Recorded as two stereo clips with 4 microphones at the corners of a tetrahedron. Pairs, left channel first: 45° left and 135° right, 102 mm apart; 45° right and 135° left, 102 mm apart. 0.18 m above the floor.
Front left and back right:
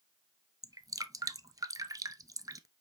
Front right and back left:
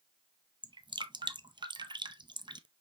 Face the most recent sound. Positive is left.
turn(degrees=175)